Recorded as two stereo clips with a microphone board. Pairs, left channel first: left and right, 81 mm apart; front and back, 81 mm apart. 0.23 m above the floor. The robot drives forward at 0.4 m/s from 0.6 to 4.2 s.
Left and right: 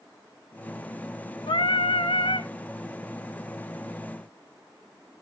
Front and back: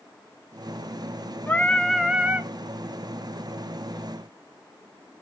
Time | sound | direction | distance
1.5 | singing | 70° left | 0.6 m